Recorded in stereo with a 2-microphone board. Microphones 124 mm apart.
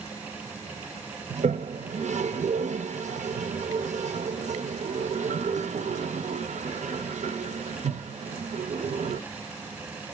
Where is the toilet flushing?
70° right (ahead or behind), 0.6 m.